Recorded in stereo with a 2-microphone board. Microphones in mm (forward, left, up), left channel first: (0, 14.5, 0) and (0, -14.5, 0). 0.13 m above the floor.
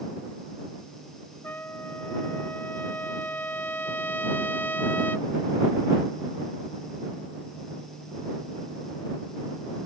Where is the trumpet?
80° left.